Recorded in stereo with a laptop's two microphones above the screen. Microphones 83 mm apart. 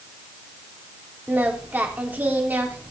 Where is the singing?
20° right (ahead or behind), 3 m.